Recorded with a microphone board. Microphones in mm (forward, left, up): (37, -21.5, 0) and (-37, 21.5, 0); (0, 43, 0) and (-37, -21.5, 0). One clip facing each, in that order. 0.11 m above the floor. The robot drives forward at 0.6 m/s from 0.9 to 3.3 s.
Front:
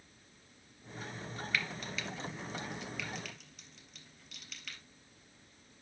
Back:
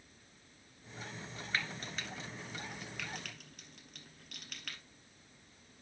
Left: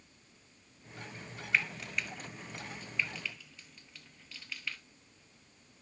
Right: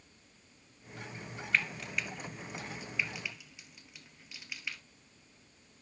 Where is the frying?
145° left, 1.2 m; by 4.8 s 165° left, 2.0 m.